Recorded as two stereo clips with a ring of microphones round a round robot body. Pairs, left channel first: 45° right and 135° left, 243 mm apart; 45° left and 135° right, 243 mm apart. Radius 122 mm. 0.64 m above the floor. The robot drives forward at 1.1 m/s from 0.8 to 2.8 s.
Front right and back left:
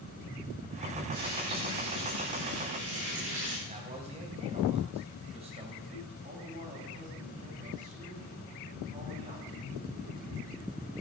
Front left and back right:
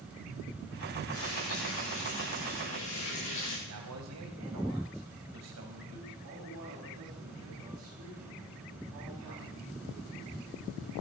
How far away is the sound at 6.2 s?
About 5.5 m.